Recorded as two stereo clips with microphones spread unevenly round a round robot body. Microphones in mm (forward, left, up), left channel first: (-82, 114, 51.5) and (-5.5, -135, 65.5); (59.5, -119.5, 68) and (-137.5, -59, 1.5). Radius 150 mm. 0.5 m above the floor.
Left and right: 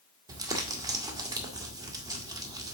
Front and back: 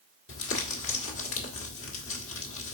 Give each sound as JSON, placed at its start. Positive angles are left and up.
{"t": 0.3, "sound": "crumpling", "azimuth_deg": 5, "distance_m": 2.0}